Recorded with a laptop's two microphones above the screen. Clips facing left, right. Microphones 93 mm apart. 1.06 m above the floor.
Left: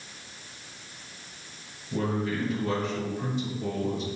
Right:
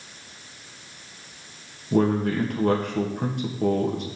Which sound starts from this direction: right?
A man speaking, at 1.9 s.